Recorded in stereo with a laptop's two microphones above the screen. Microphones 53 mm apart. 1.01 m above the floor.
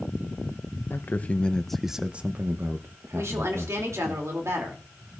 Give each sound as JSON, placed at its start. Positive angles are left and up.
{"t": 0.9, "sound": "a man speaking", "side_deg": 45, "distance_m": 0.8}
{"t": 3.1, "sound": "a woman speaking", "side_deg": -60, "distance_m": 2.5}